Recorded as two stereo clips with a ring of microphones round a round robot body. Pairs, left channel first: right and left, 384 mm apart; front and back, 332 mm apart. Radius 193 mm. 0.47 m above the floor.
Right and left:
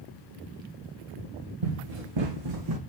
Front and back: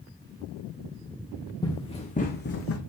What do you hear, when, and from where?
1.6 s running footsteps: 80° left, 2.5 m; by 2.8 s 45° left, 1.6 m